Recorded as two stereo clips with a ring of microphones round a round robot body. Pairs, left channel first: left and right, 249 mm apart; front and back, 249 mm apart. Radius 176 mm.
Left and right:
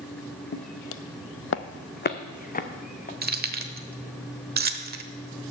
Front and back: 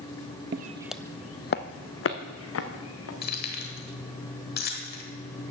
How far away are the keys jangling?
About 1.2 m.